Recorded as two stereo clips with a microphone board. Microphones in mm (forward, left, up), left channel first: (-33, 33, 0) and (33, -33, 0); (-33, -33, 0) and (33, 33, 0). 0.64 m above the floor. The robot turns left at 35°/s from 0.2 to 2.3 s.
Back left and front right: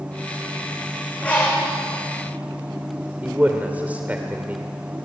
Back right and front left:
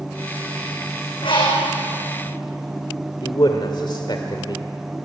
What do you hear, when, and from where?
1.2 s a bird: 145° right, 7 m; by 1.7 s 165° right, 7 m
3.2 s a man speaking: 115° right, 1.9 m